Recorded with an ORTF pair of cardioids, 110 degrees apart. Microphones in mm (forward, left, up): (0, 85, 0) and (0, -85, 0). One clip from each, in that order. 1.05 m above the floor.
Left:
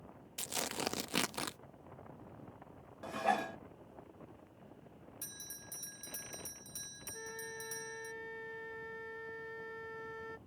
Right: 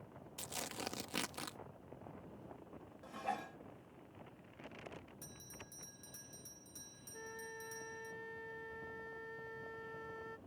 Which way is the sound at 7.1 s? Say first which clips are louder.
Left 3 dB; 15° left.